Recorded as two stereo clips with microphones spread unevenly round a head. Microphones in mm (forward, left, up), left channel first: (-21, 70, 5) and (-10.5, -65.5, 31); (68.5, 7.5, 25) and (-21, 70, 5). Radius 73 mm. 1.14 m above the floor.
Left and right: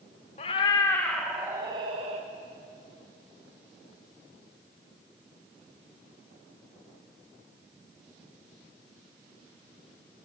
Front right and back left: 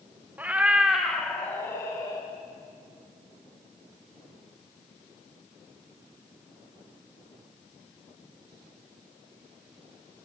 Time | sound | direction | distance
0.4 | a cat meowing | 65° left | 0.8 m